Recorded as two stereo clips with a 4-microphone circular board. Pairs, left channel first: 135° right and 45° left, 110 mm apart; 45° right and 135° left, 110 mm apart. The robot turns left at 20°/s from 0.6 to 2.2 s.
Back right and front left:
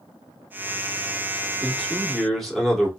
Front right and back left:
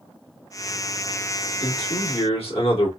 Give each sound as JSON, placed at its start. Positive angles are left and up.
{"t": 1.6, "sound": "a man speaking", "azimuth_deg": -35, "distance_m": 1.9}